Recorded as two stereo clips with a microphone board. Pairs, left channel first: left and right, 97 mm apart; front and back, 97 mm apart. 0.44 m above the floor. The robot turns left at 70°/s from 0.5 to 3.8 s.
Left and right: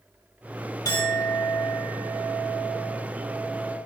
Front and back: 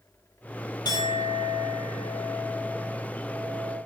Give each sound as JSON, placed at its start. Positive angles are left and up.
{"t": 0.8, "sound": "a clink", "azimuth_deg": 45, "distance_m": 1.2}